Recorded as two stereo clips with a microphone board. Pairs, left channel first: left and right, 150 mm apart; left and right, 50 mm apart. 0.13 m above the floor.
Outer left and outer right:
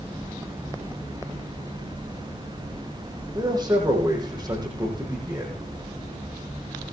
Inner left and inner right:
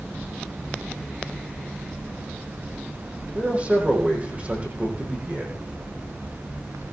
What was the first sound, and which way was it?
A man speaking, 30° right (ahead or behind).